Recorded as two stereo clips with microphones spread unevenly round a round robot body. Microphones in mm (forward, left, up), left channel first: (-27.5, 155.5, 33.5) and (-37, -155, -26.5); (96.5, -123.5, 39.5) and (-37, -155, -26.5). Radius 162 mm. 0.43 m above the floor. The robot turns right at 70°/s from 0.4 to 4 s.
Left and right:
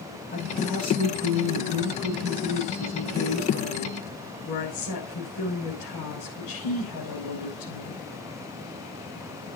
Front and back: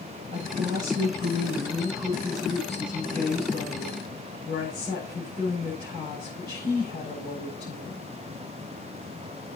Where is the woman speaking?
165° left, 7 m; by 8.1 s 55° left, 7 m.